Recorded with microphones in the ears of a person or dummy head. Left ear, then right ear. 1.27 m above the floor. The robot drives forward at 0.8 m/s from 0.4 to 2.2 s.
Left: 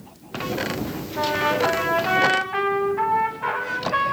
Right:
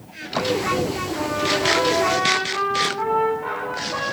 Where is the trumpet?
65° left (ahead or behind), 9.5 m; by 4.1 s 60° left (ahead or behind), 10 m.